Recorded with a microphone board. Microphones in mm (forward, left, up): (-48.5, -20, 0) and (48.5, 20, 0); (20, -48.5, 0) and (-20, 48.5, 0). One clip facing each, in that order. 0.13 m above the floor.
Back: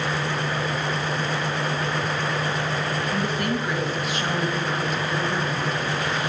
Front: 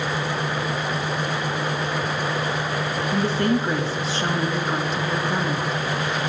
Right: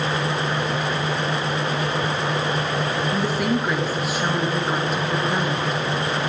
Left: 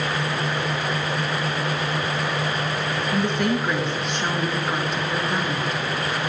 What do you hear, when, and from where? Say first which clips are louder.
3.1 s a woman speaking: front 7 dB, left 2 dB; 15° left, 1.4 m